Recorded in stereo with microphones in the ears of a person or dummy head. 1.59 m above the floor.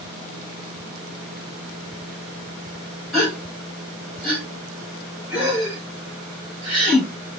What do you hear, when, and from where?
3.1 s a gasp: centre (ahead or behind), 1.1 m